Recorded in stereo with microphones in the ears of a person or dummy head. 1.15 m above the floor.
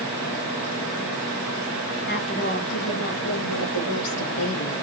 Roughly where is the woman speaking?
Left.